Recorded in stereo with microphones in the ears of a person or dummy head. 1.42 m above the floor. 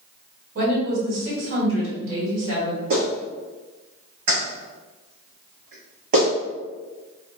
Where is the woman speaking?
85° right, 1.4 m.